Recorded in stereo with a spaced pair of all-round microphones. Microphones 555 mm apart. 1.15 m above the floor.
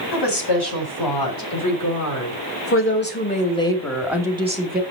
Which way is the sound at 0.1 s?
45° left (ahead or behind).